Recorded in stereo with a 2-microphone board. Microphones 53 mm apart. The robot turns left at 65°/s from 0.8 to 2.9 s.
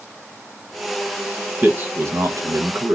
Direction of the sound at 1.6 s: 30° right.